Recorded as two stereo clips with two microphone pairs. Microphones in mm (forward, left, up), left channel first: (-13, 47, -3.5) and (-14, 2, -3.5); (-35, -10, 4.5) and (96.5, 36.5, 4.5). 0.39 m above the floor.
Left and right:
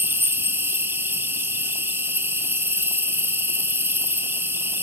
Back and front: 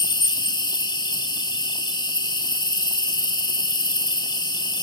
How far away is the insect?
About 1.3 m.